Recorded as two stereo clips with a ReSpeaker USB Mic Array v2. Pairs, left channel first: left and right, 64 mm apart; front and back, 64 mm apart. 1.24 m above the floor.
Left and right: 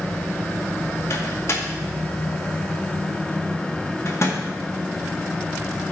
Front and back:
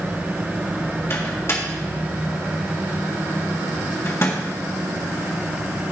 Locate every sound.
1.1 s a microwave: 45° left, 1.7 m